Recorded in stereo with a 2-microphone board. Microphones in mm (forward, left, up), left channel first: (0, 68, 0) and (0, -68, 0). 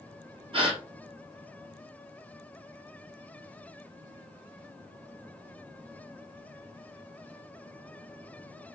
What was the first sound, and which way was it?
A gasp, 45° right (ahead or behind).